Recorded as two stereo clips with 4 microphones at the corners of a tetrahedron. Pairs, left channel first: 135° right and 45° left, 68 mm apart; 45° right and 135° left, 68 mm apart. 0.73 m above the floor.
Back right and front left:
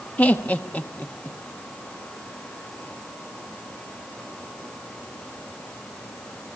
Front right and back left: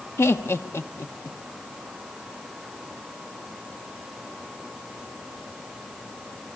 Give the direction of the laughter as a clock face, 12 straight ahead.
2 o'clock.